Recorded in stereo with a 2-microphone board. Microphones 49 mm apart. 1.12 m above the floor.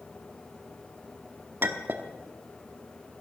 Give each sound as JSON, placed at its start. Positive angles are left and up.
{"t": 1.6, "sound": "a clink", "side_deg": -45, "distance_m": 1.1}